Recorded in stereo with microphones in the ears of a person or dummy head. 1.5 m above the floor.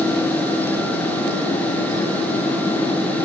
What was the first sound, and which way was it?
Only background noise.